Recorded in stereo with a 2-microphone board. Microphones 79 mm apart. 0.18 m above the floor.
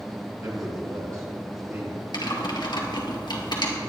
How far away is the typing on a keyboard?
About 2.5 m.